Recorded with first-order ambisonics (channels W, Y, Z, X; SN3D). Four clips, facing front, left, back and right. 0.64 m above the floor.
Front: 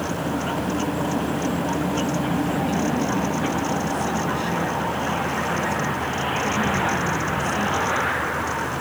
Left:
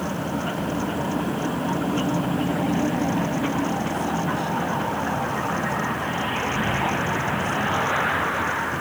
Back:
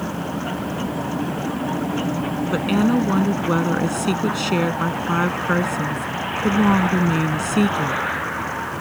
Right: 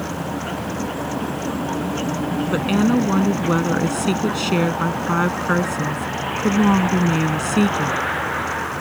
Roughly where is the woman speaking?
Behind right.